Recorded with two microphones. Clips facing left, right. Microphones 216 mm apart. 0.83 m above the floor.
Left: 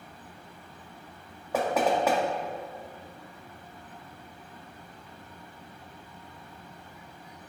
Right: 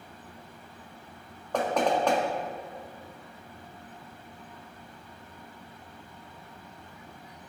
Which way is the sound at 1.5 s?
5° left (ahead or behind).